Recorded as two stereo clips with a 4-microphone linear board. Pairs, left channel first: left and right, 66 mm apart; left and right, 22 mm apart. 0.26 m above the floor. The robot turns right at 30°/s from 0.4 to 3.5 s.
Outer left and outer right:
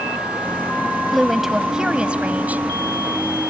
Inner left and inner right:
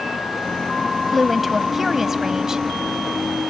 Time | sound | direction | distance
1.1 | a woman speaking | straight behind | ?